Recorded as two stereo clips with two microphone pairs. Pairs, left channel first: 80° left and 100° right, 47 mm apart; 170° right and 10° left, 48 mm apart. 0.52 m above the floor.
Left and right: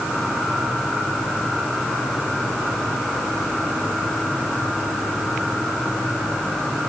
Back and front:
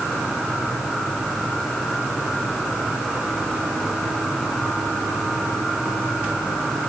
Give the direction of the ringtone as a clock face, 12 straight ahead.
I don't hear a ringtone.